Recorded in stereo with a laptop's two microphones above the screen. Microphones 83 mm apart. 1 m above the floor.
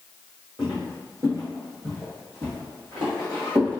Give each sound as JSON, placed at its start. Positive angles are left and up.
{"t": 0.6, "sound": "footsteps", "side_deg": -25, "distance_m": 1.5}